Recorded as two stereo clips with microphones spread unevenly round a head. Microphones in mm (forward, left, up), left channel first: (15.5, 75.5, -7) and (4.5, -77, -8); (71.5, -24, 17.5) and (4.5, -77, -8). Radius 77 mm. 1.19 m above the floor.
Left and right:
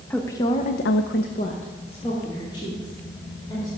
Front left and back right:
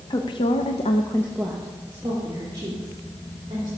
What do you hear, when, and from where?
0.1 s a woman speaking: 10° left, 1.2 m; by 3.7 s 155° left, 4 m